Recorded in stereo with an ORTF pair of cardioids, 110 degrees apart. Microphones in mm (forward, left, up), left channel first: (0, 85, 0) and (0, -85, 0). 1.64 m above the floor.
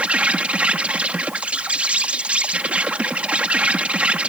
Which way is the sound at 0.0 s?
5° right.